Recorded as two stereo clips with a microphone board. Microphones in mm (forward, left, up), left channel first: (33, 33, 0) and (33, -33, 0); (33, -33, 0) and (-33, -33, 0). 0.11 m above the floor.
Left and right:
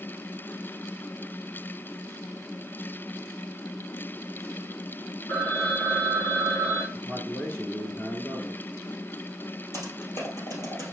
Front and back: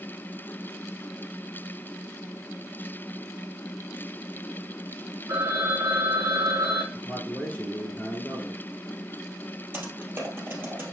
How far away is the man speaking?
About 1.8 m.